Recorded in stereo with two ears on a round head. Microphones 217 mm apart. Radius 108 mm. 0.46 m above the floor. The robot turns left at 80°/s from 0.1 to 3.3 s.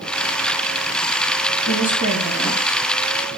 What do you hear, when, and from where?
1.6 s a woman speaking: 55° left, 8.5 m; by 2.8 s 40° right, 8.5 m